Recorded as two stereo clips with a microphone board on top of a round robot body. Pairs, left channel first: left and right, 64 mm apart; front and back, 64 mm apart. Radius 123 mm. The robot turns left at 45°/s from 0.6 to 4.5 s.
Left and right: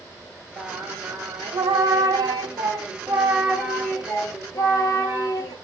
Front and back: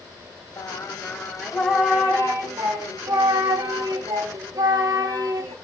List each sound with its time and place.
0.6 s singing: 50° right, 1.1 m; by 5.5 s 135° left, 1.1 m